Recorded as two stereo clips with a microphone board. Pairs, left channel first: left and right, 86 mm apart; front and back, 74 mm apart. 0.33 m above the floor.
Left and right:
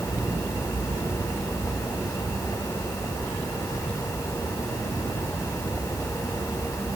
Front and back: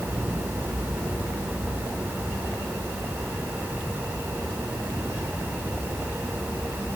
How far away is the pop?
No pop in this recording.